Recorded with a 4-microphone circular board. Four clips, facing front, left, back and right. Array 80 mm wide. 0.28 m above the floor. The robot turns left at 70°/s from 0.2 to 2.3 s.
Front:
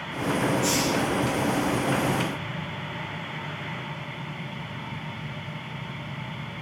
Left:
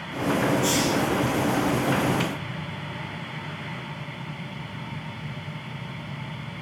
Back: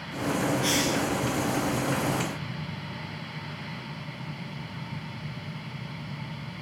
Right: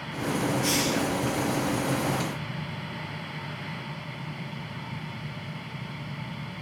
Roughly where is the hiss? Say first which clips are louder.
Left 3 dB, front 2 dB; behind.